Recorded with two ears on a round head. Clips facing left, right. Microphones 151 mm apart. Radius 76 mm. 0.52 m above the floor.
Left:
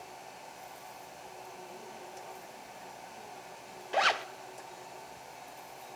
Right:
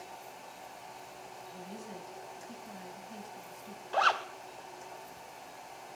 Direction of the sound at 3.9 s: 20° left (ahead or behind).